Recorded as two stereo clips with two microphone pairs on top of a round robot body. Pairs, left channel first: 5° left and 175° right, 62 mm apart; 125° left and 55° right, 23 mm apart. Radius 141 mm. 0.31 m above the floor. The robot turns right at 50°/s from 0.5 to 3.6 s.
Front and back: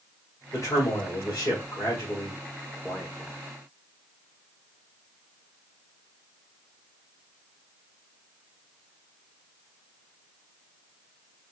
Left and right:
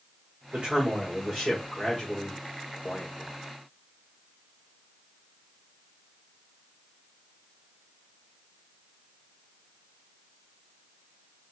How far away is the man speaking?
About 2.0 m.